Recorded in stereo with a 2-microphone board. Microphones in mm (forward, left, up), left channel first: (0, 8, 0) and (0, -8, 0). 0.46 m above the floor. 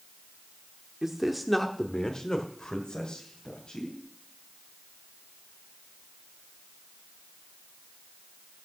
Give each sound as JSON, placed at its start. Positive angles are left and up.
{"t": 1.0, "sound": "a man speaking", "side_deg": -25, "distance_m": 0.9}